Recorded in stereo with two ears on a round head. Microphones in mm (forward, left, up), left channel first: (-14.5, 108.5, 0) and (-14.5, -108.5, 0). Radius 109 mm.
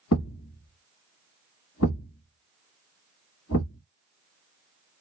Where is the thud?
60° left (ahead or behind), 1.2 m.